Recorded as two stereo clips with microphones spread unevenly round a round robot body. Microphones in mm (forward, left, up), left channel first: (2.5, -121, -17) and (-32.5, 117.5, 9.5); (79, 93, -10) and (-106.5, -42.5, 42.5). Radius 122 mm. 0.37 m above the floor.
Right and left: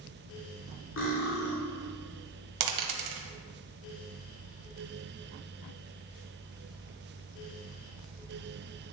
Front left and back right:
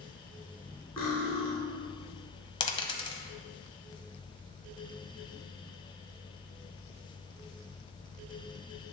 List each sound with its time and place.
1.0 s cutlery clinking: 45° right, 2.0 m
2.6 s a dropped coin: 105° left, 0.9 m